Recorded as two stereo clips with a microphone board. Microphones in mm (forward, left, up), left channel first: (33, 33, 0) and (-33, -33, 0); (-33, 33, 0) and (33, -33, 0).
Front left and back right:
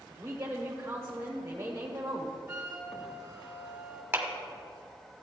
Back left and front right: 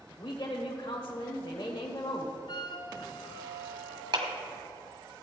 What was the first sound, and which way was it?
A woman speaking, 165° left.